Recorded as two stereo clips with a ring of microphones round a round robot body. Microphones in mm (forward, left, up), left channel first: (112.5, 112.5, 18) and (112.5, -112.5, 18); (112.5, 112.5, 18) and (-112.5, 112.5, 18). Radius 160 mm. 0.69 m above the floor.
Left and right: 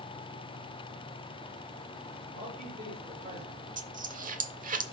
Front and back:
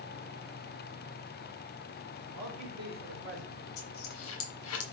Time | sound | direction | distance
2.3 | a man speaking | 155° right | 2.5 m
3.8 | a dropped coin | 35° right | 0.8 m